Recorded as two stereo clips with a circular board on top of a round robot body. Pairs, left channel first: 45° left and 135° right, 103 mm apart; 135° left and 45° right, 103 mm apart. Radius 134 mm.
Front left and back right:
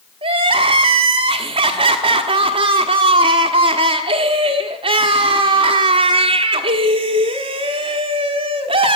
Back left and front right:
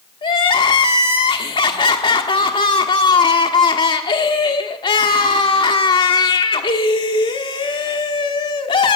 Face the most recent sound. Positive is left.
turn(degrees=180)